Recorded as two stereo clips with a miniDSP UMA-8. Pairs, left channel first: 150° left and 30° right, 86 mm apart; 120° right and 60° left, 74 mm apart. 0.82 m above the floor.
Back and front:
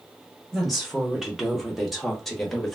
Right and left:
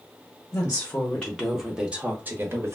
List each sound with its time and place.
0.5 s a woman speaking: 110° right, 1.0 m; by 2.8 s 65° left, 1.1 m